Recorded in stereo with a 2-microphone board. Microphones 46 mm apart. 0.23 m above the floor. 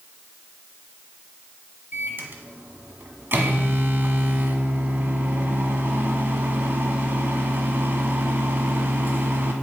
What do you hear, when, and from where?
1.9 s a microwave: 50° right (ahead or behind), 1.4 m